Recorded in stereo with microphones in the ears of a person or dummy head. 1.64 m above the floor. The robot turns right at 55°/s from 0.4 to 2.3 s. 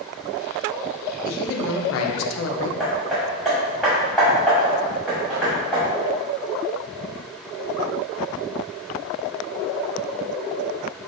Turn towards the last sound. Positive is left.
turn(degrees=0)  # may be behind; listen again after turning